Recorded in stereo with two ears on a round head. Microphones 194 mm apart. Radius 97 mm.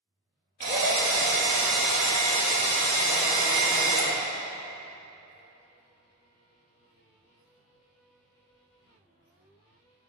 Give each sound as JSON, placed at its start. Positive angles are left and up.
{"t": 0.6, "sound": "a drill", "side_deg": -35, "distance_m": 1.5}